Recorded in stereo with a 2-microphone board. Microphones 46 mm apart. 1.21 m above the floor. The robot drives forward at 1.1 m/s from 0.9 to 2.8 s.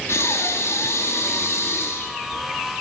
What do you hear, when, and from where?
0.1 s breathing: 80° left, 3 m; by 2.4 s 60° left (ahead or behind), 3.5 m